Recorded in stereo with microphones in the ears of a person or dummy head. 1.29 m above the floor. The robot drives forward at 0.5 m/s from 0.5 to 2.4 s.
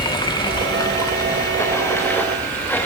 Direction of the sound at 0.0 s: 20° left (ahead or behind).